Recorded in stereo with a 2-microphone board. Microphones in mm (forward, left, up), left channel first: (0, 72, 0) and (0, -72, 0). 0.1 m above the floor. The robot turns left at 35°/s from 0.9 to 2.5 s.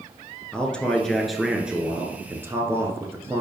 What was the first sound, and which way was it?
A man speaking, 5° left (ahead or behind).